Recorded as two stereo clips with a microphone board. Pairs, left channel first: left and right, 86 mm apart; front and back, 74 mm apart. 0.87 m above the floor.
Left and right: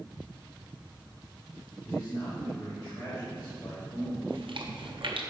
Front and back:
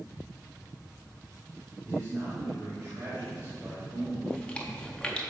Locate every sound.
1.9 s a man speaking: 130° left, 1.7 m
4.3 s chewing: 75° right, 0.7 m